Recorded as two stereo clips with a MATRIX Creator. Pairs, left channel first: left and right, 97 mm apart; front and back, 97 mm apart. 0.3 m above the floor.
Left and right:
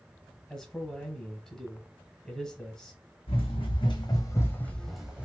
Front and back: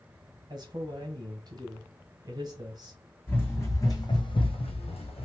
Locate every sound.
0.5 s a man speaking: 170° left, 1.2 m
3.3 s running footsteps: 70° left, 1.4 m; by 5.3 s 15° right, 1.0 m